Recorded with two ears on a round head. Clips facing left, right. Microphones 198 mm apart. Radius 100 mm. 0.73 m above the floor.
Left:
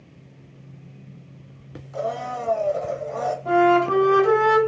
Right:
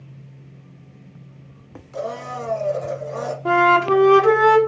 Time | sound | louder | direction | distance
1.9 | a blender | left 1 dB | 30° right (ahead or behind) | 0.5 m
3.5 | a flute | even | 75° right (ahead or behind) | 0.9 m